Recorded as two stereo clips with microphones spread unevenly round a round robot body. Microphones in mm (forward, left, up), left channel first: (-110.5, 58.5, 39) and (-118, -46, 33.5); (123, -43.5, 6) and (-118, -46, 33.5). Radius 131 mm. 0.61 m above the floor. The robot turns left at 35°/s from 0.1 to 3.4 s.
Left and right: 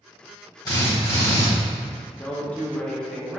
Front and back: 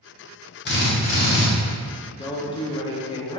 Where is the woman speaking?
30° left, 0.5 m; by 3.4 s 15° right, 0.5 m.